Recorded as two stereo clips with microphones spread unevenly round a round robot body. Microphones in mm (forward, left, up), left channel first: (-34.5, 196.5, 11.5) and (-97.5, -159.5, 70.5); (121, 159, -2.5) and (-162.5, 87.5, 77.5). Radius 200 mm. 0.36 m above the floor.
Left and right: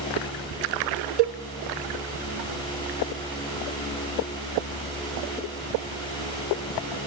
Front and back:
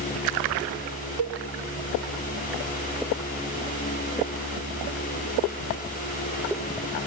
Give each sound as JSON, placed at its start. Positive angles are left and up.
{"t": 1.2, "sound": "a cowbell", "azimuth_deg": -125, "distance_m": 0.6}